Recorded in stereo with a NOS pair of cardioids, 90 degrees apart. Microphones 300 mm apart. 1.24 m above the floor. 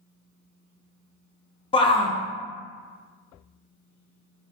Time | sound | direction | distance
1.7 | a shout | 20° left | 0.6 m